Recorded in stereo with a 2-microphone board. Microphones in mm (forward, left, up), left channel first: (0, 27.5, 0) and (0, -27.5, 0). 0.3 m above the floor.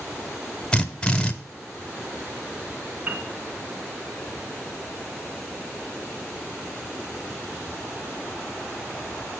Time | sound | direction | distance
0.7 | a drill | 15° left (ahead or behind) | 1.0 m
3.1 | a piano | 25° right (ahead or behind) | 2 m